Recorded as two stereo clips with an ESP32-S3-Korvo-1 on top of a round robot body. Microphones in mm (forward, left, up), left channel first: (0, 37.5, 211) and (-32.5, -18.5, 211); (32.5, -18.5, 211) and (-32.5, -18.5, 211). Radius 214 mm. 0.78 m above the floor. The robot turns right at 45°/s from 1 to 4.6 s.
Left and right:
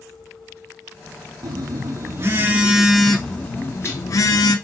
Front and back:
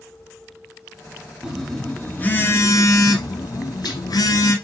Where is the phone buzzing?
100° right, 1.3 m; by 4.5 s 40° left, 1.3 m.